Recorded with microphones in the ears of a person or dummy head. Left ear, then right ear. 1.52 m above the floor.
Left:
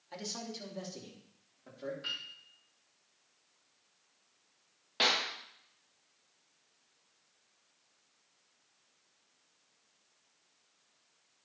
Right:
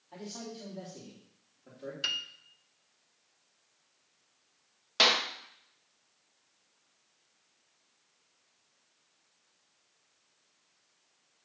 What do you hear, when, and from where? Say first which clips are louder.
0.1 s a man speaking: left 2 dB; 55° left (ahead or behind), 3 m; by 1.9 s 35° left (ahead or behind), 3.5 m
2.0 s a piano: right 8 dB; 75° right (ahead or behind), 0.9 m
5.0 s a clap: right 5 dB; 30° right (ahead or behind), 1.3 m